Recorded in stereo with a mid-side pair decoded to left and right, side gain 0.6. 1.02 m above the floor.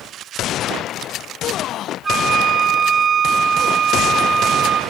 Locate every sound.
2.0 s a flute: 30° right, 1.2 m